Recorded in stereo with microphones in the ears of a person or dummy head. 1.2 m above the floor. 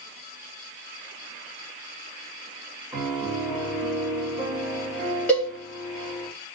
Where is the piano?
5° right (ahead or behind), 0.9 m.